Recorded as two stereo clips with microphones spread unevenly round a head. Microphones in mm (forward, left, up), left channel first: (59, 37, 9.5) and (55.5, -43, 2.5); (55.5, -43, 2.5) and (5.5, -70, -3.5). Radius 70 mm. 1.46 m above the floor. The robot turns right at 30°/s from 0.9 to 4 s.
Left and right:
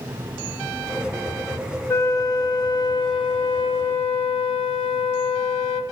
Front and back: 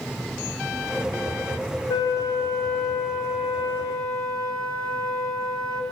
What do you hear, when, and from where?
1.9 s a flute: 35° left, 1.2 m; by 5.8 s 100° left, 1.2 m